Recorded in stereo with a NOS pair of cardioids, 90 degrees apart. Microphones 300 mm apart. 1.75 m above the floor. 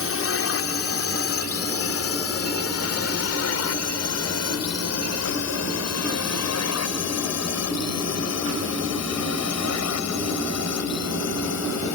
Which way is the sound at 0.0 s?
50° left.